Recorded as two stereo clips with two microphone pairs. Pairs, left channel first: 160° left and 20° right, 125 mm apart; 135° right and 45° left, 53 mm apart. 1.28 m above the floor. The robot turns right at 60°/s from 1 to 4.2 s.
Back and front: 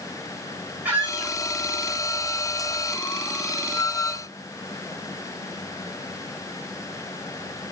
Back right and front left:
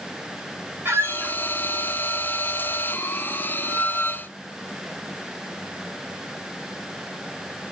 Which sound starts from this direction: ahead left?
A squeak, at 0.8 s.